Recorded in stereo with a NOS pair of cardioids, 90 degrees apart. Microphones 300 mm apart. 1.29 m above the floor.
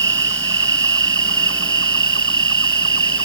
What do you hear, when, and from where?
0.0 s an insect: 40° right